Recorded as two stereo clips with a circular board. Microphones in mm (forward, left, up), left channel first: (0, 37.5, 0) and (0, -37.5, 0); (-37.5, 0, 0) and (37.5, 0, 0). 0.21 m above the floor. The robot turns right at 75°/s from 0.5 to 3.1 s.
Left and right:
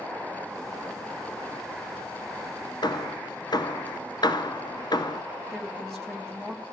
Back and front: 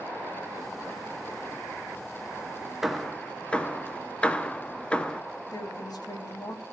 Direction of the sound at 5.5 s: Straight behind.